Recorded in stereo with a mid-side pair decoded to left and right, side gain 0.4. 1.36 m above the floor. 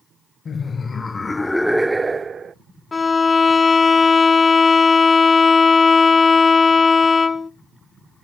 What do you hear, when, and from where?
0.5 s laughter: 50° left, 1.1 m; by 2.5 s 50° right, 0.7 m
2.9 s a violin: 40° left, 0.7 m